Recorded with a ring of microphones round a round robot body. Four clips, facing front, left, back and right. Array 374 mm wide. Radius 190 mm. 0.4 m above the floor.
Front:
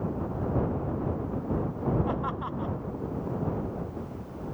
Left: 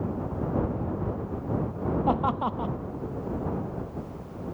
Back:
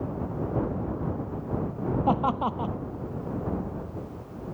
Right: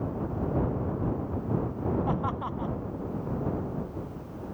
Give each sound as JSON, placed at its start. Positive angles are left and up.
{"t": 2.1, "sound": "laughter", "azimuth_deg": 150}